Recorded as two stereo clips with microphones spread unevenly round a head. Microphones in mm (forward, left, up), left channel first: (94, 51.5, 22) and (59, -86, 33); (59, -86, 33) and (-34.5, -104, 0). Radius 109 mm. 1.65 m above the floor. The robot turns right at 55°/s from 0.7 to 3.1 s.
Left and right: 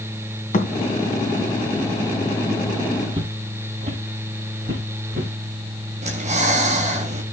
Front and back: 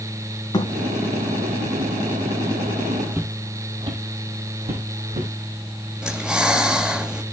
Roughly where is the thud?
Ahead left.